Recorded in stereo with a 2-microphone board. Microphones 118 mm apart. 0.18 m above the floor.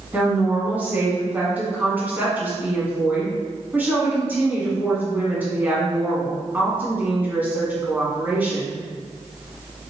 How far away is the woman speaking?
About 1.5 m.